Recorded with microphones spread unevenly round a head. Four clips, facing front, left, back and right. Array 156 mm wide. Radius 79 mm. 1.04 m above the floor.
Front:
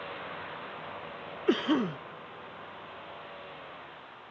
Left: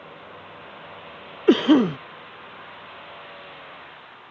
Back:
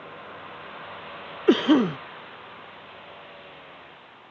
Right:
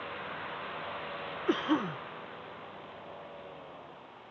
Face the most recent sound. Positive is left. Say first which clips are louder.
# left 14 dB, back 8 dB
turn(degrees=115)